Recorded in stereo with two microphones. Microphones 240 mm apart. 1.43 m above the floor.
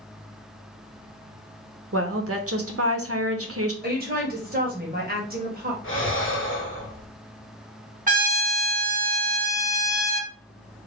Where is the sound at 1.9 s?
65° right (ahead or behind), 0.7 m.